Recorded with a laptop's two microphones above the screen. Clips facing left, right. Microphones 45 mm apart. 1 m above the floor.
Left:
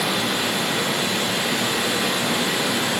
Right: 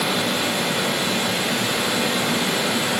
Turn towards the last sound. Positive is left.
turn(degrees=-15)  # may be behind; listen again after turning